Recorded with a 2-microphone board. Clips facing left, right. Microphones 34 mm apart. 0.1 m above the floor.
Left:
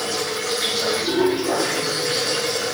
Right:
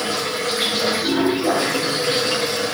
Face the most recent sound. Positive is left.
turn(degrees=-65)  # may be behind; listen again after turning